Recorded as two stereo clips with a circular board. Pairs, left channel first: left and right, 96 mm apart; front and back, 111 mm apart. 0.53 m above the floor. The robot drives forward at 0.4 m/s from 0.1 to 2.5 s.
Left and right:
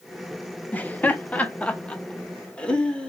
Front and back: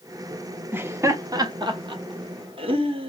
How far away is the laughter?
About 0.7 m.